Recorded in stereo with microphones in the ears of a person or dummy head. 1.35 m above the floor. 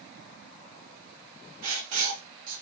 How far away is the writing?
About 0.6 m.